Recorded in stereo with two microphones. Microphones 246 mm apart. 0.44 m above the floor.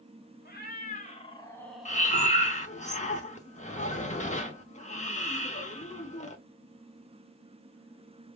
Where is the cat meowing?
40° left (ahead or behind), 1.0 m; by 2.1 s 15° right (ahead or behind), 0.7 m.